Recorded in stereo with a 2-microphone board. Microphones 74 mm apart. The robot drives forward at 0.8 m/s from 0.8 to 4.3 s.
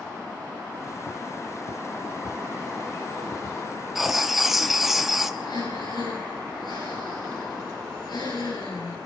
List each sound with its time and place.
4.0 s writing: 5° right (ahead or behind), 1.6 m
5.4 s breathing: 75° left (ahead or behind), 7.5 m